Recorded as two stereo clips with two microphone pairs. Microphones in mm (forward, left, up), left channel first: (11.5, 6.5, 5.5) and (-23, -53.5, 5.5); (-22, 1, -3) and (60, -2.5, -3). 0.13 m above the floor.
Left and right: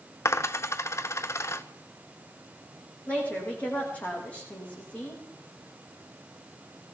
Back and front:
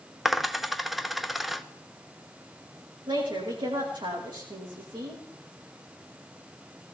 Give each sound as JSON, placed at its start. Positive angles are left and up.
{"t": 0.2, "sound": "a dropped coin", "azimuth_deg": 85, "distance_m": 0.6}
{"t": 3.1, "sound": "a woman speaking", "azimuth_deg": -10, "distance_m": 6.5}